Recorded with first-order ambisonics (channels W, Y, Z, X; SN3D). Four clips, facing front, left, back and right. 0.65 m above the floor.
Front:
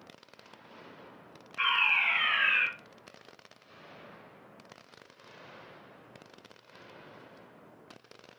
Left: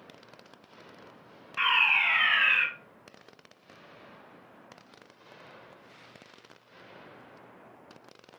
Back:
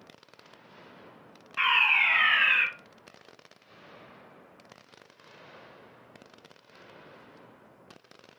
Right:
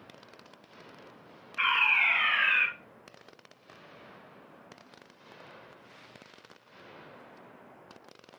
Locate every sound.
1.6 s a fire alarm: 140° left, 3 m